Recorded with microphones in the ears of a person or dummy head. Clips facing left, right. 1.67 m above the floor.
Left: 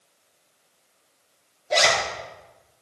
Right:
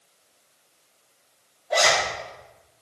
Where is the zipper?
35° left (ahead or behind), 2 m.